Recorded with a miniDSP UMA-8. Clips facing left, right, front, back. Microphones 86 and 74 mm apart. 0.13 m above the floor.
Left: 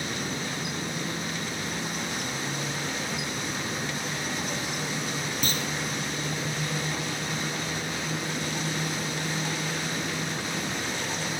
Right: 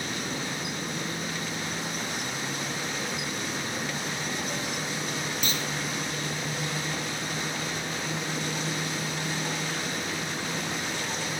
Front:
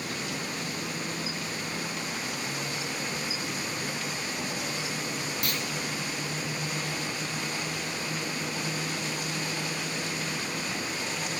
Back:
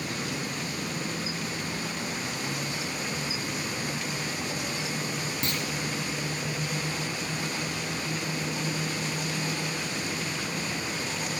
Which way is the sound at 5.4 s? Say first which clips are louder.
Left 1 dB, back 3 dB; 130° left.